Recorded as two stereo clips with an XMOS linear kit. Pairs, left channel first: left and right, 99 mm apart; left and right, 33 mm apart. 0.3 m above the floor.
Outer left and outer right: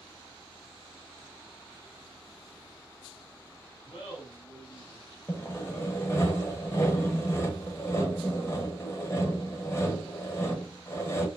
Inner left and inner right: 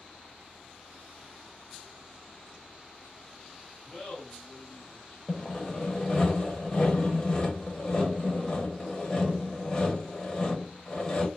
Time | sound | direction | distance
3.9 | laughter | 30° left (ahead or behind) | 1.5 m
5.3 | sawing | 25° left (ahead or behind) | 0.7 m